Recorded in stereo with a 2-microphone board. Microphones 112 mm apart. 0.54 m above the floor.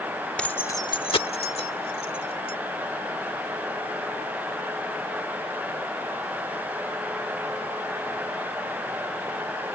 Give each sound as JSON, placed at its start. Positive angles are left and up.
{"t": 0.4, "sound": "keys jangling", "side_deg": 10}